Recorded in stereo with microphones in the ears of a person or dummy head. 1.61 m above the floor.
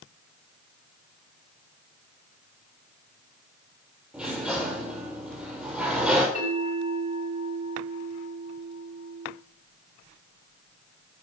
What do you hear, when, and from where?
4.1 s a sliding door: centre (ahead or behind), 4.5 m
6.3 s a bell: 35° left (ahead or behind), 6 m